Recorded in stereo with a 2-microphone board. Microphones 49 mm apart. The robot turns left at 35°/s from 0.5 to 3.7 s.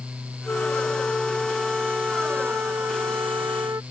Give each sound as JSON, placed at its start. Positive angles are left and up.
{"t": 0.5, "sound": "a flute", "azimuth_deg": 30}